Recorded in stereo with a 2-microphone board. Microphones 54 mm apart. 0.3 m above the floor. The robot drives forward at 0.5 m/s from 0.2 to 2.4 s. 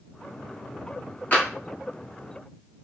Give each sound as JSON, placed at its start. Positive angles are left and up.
{"t": 1.3, "sound": "tapping", "side_deg": 30, "distance_m": 2.0}